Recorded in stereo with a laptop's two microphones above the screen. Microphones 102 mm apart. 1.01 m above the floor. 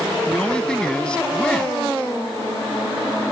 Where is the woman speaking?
10° left (ahead or behind).